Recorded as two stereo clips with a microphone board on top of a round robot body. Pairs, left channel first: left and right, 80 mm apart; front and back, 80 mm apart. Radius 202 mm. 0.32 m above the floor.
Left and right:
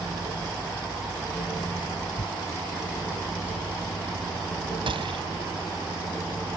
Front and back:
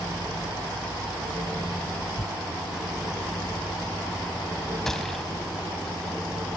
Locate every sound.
2.2 s tearing paper: 85° left
4.9 s a gunshot: 85° right